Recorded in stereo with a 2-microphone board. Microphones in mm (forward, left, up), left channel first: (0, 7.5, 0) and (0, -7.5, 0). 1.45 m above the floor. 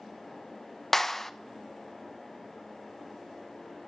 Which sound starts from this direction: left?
A clap, at 0.9 s.